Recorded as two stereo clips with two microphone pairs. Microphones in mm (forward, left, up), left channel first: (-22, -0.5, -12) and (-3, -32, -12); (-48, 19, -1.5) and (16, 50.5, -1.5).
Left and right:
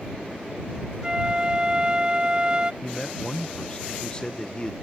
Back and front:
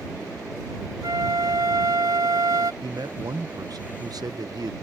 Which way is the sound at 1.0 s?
5° left.